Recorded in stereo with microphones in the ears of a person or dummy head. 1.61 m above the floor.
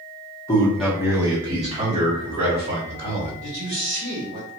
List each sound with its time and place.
0.5 s a man speaking: 20° left (ahead or behind), 1.1 m; by 3.3 s 45° right (ahead or behind), 3 m
3.4 s a man speaking: 40° right (ahead or behind), 1.7 m